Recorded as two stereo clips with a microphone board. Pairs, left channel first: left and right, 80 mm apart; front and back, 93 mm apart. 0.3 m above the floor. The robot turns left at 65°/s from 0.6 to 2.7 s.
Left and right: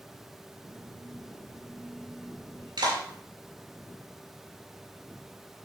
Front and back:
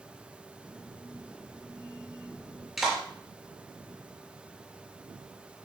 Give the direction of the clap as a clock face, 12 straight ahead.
3 o'clock.